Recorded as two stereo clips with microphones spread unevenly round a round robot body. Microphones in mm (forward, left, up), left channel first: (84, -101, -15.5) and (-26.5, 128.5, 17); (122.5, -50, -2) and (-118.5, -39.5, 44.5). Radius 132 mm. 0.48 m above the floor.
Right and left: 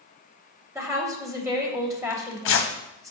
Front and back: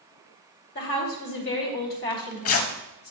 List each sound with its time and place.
0.8 s a woman speaking: 35° left, 3 m
2.1 s tearing paper: 25° right, 1.5 m